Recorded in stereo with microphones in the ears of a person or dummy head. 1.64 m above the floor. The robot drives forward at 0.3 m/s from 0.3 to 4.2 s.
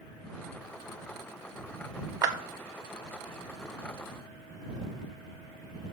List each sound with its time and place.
2.2 s a clap: 20° right (ahead or behind), 0.7 m